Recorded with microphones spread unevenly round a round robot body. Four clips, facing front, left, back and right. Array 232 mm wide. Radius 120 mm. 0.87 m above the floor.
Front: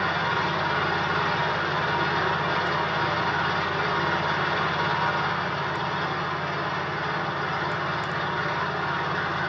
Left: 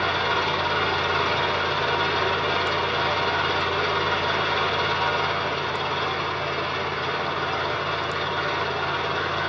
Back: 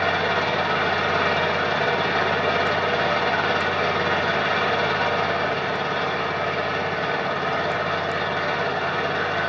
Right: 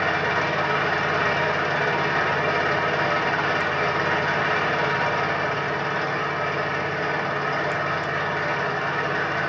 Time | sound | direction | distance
0.0 | an engine running | 150° right | 5 m